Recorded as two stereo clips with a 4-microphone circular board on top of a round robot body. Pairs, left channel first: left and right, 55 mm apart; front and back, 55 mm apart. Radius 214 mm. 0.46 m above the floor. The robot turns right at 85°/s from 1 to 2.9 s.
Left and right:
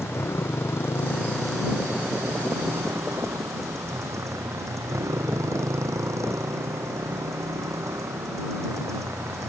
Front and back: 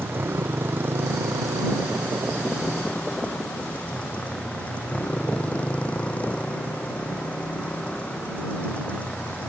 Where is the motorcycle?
130° left; by 9.5 s 70° right.